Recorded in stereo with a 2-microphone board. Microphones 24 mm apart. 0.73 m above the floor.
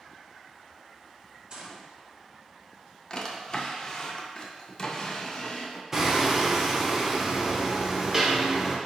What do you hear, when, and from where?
1.5 s a gunshot: 40° right (ahead or behind), 0.9 m
3.1 s a drawer: 30° left (ahead or behind), 0.5 m
5.9 s hammering: 20° right (ahead or behind), 0.6 m